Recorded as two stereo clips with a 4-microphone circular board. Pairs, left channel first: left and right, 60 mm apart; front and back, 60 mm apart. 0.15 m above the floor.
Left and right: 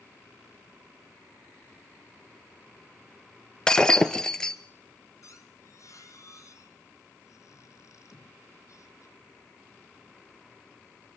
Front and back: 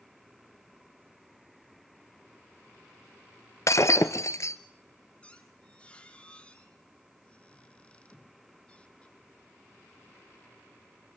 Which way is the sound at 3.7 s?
15° left.